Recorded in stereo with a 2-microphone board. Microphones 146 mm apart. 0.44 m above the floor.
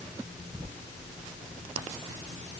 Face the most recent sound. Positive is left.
No sound to turn to.